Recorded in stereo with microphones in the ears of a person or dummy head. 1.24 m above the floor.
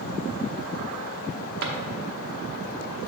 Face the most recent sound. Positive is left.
turn(degrees=-60)  # may be behind; listen again after turning